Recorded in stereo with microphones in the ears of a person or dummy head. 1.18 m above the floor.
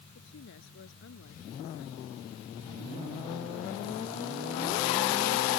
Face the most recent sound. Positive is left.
turn(degrees=75)  # may be behind; listen again after turning